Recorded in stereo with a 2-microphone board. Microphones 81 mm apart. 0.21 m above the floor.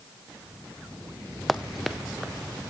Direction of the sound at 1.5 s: Centre (ahead or behind).